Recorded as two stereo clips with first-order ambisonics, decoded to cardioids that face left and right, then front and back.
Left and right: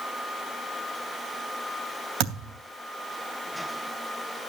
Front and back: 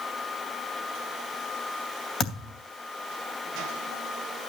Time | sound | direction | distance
2.2 | a thud | 65° right | 3 m